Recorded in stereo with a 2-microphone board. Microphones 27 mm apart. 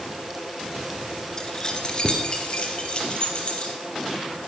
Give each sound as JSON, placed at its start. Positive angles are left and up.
{"t": 1.4, "sound": "keys jangling", "side_deg": 25, "distance_m": 2.0}